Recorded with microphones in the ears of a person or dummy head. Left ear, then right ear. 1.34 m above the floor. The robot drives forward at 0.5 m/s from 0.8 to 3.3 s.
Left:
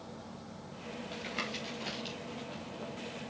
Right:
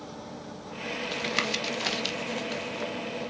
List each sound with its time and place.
1.1 s tapping: 40° right (ahead or behind), 1.9 m; by 2.9 s 65° right (ahead or behind), 1.4 m